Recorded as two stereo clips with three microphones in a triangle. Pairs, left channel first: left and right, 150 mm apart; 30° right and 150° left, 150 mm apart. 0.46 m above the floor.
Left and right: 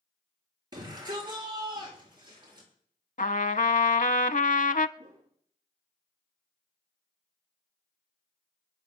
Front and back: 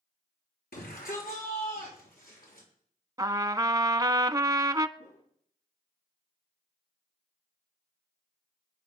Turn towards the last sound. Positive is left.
turn(degrees=-30)